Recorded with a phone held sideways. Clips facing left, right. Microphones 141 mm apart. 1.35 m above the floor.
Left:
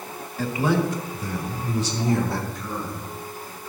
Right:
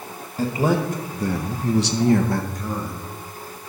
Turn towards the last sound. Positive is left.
turn(degrees=-30)  # may be behind; listen again after turning